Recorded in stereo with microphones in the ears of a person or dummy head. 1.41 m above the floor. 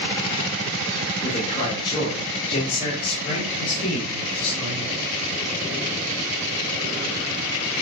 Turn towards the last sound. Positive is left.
turn(degrees=35)  # may be behind; listen again after turning